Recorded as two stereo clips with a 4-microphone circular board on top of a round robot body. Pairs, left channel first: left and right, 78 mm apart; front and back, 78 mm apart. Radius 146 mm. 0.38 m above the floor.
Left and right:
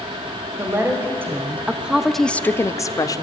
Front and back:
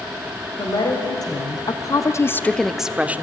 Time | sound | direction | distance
0.6 | a woman speaking | 35° right | 2.5 m